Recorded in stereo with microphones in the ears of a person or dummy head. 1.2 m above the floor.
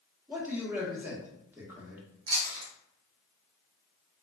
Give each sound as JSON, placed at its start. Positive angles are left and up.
{"t": 0.3, "sound": "a man speaking", "side_deg": -10, "distance_m": 0.8}
{"t": 2.3, "sound": "chewing", "side_deg": -75, "distance_m": 1.1}